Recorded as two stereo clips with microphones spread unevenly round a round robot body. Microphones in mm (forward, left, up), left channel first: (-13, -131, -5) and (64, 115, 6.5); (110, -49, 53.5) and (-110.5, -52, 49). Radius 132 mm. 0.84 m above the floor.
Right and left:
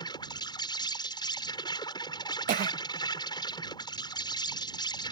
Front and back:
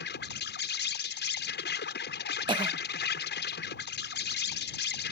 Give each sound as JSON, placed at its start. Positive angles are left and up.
{"t": 0.0, "sound": "an insect", "azimuth_deg": -35}
{"t": 2.5, "sound": "a cough", "azimuth_deg": 120}